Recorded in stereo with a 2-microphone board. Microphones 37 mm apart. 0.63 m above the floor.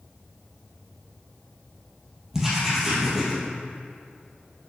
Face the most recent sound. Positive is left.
turn(degrees=-5)  # may be behind; listen again after turning